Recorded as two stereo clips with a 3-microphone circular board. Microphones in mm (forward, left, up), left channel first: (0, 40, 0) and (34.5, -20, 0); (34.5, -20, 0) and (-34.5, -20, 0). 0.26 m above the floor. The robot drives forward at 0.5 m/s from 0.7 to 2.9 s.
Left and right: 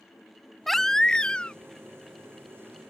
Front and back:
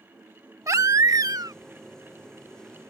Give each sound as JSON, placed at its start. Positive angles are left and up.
{"t": 0.7, "sound": "a baby crying", "azimuth_deg": -155}